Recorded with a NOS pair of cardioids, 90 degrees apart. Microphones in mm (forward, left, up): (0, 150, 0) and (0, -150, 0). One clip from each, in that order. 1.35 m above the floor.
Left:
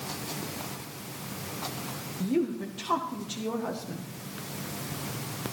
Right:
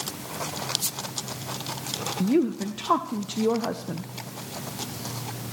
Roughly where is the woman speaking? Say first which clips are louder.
Right 4 dB; ahead right.